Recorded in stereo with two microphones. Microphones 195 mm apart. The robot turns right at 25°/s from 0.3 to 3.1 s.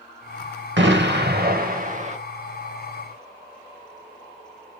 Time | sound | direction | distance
0.8 | an explosion | 70° right | 0.6 m